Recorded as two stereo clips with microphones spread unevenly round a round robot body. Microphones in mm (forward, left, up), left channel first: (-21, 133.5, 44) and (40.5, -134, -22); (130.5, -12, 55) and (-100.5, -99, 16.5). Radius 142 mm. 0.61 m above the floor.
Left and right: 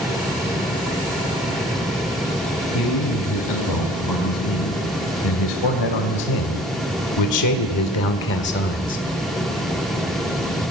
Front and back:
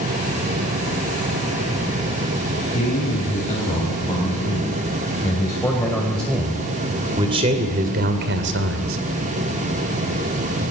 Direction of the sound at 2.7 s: 85° left.